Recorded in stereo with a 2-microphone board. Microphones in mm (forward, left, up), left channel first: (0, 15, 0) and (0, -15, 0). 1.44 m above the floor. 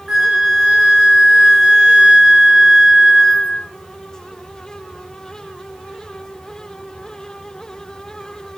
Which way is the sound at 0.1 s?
20° right (ahead or behind).